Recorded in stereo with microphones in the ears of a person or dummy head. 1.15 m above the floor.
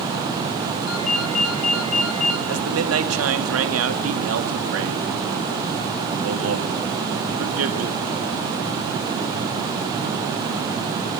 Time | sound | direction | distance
0.9 | a ringtone | 85° left | 2.5 m
2.5 | a man speaking | 80° right | 2 m